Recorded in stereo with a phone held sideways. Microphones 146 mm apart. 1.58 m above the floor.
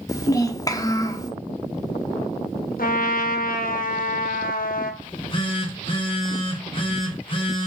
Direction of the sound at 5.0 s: 35° left (ahead or behind).